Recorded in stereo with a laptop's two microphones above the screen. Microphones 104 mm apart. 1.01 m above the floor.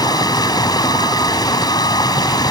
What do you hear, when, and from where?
0.0 s running water: 40° left (ahead or behind)